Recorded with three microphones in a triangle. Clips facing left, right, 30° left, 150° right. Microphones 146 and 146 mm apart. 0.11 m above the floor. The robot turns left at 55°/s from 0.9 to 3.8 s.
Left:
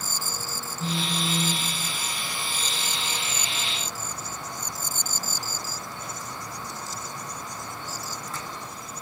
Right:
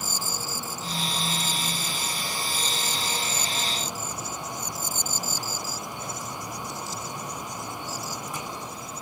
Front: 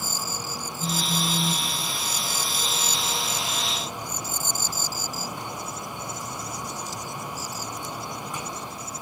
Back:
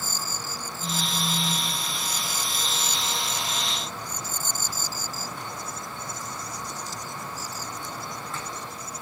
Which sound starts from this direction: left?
A phone buzzing, at 0.8 s.